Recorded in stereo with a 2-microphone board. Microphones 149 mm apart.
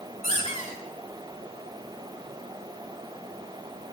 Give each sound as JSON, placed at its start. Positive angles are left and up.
{"t": 0.2, "sound": "a squeak", "side_deg": 50, "distance_m": 6.0}